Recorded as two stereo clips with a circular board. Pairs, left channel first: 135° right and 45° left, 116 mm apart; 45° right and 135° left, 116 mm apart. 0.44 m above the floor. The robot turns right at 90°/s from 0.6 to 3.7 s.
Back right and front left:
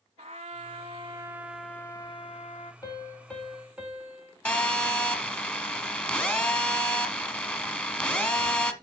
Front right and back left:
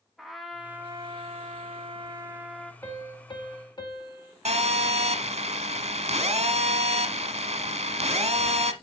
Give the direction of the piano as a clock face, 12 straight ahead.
3 o'clock.